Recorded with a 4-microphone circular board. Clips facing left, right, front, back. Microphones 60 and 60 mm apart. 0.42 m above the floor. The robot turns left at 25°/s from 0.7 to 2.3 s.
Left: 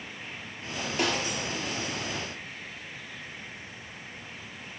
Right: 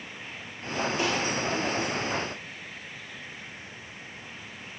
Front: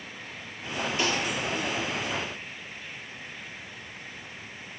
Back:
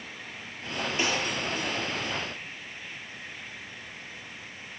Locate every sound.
1.0 s a snare drum: 115° left, 4 m; by 1.3 s 110° left, 4 m